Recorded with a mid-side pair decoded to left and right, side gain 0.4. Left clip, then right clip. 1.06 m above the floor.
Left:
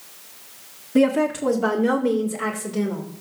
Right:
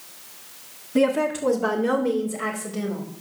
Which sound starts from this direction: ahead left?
A woman speaking, at 0.9 s.